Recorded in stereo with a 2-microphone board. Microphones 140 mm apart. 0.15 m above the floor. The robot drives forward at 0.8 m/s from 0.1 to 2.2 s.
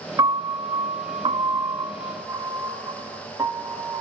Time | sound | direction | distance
0.2 | a piano | 25° right (ahead or behind) | 1.0 m